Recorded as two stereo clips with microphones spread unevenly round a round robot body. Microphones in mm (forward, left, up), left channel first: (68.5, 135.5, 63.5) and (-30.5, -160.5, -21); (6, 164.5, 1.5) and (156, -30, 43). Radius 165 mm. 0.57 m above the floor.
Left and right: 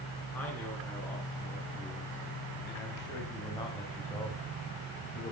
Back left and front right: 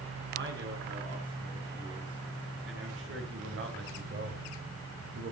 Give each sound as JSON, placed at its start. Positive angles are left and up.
{"t": 0.3, "sound": "a man speaking", "azimuth_deg": -15, "distance_m": 6.0}